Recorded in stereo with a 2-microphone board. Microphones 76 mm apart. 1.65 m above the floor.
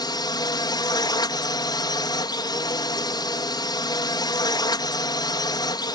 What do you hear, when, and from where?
0.0 s a drone: 70° left (ahead or behind)